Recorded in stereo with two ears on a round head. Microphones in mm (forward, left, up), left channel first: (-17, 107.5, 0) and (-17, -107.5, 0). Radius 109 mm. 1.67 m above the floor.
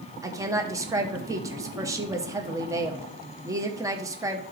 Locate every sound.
0.2 s a woman speaking: 15° right (ahead or behind), 0.9 m